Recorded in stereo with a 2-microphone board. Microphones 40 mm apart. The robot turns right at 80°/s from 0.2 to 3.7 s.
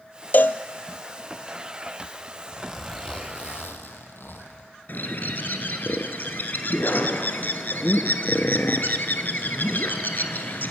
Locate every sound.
0.3 s a cowbell: 50° left (ahead or behind), 0.6 m; by 0.6 s 70° left (ahead or behind), 0.6 m
2.5 s a zipper: 30° right, 1.9 m; by 4.7 s 70° left, 1.9 m
4.9 s a bird: 55° left (ahead or behind), 1.3 m